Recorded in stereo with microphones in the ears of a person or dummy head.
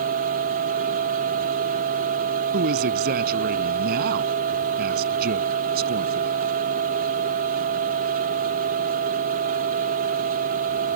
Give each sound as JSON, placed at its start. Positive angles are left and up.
{"t": 0.0, "sound": "a machine running", "side_deg": -45}
{"t": 2.5, "sound": "a man speaking", "side_deg": -50}